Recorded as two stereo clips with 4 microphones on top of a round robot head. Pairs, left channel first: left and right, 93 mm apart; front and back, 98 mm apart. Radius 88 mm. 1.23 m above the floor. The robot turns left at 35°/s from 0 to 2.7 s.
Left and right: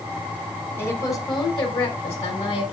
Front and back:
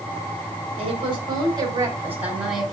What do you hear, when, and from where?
0.8 s a woman speaking: 155° left, 5 m; by 2.7 s 90° left, 5 m